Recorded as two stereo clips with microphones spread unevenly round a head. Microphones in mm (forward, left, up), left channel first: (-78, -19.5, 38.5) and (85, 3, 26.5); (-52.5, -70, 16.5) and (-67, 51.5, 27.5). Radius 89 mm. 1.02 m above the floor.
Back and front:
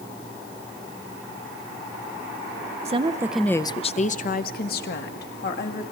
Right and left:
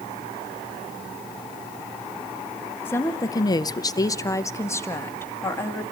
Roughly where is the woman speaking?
Ahead.